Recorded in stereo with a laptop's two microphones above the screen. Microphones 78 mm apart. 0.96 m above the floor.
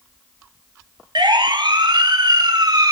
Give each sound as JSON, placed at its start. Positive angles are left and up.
{"t": 1.1, "sound": "a siren", "side_deg": -75, "distance_m": 2.5}